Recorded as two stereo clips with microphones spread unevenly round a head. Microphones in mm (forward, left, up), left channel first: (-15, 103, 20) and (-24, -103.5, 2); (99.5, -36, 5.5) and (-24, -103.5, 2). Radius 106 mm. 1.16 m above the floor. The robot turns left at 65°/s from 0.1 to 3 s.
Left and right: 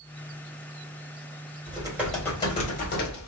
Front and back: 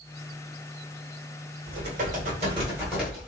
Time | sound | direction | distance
1.7 | typing on a keyboard | 155° right | 1.5 m